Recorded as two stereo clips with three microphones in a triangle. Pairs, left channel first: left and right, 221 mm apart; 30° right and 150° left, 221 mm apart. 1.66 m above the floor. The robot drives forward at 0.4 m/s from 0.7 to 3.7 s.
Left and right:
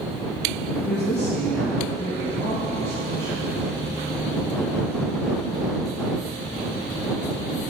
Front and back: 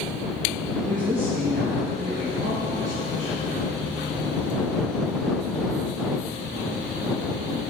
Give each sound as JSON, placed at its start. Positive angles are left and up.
{"t": 0.9, "sound": "a woman speaking", "azimuth_deg": 105, "distance_m": 0.6}